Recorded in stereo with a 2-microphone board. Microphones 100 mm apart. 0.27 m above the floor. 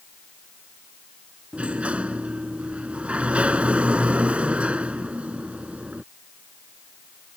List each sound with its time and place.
1.5 s a sliding door: 10° right (ahead or behind)